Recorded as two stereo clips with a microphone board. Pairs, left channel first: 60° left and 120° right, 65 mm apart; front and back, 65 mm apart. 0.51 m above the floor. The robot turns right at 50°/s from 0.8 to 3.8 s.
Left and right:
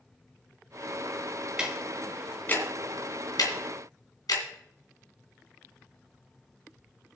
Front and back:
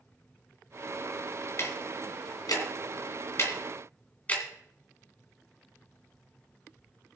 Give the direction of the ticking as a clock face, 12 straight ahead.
2 o'clock.